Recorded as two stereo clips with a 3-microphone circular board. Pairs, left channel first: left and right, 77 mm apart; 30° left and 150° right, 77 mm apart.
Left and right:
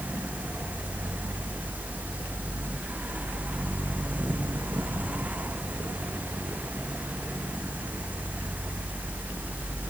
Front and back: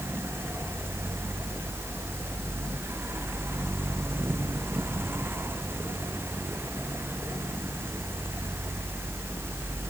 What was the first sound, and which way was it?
Only background noise.